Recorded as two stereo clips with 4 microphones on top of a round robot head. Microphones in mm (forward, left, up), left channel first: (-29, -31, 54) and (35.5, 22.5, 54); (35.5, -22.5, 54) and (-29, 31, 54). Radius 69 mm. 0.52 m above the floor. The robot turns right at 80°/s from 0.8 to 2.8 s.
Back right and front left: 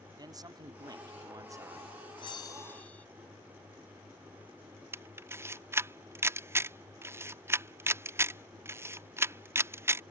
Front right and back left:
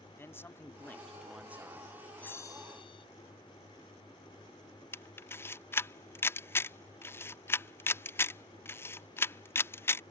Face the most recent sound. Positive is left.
turn(degrees=5)